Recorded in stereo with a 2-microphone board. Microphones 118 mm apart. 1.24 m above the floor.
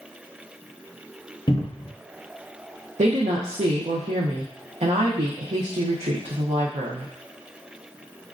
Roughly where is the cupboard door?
Left.